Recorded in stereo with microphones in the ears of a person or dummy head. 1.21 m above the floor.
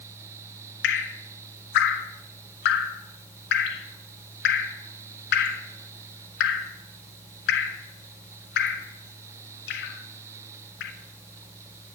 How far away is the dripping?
About 0.9 m.